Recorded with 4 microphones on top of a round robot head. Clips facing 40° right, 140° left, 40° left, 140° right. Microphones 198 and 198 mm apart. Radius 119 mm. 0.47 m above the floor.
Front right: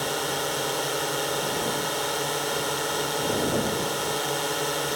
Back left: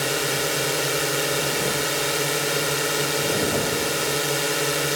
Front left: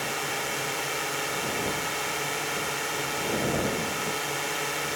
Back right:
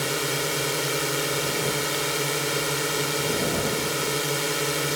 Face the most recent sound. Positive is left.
turn(degrees=-160)